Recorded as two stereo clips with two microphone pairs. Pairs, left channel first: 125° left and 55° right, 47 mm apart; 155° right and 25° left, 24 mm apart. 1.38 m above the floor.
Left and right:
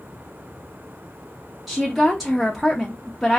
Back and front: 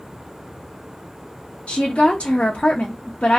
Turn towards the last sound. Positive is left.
turn(degrees=-145)